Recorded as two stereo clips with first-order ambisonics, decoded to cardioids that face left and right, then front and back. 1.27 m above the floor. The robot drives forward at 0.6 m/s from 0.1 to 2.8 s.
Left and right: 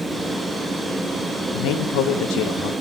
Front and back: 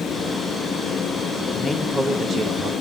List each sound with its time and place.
1.5 s a man speaking: 75° left, 0.7 m; by 2.7 s 125° left, 0.9 m